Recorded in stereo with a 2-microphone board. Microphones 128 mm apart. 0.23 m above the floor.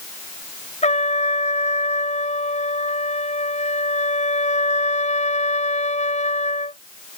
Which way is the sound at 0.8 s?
65° left (ahead or behind).